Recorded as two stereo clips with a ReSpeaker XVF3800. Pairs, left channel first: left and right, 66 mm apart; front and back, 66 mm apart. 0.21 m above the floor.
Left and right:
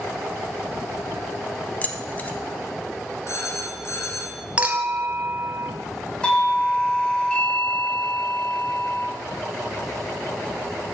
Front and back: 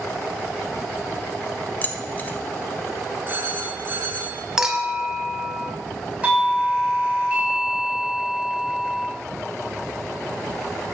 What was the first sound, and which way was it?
Keys jangling, 40° left.